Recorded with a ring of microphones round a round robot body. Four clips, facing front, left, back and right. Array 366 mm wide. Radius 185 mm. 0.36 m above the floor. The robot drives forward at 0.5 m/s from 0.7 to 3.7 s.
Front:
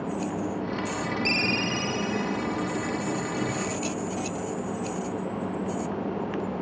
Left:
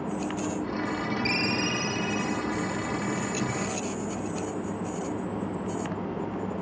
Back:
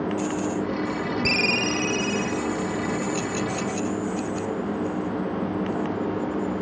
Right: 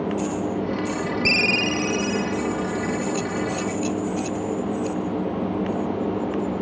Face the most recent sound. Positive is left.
turn(degrees=-150)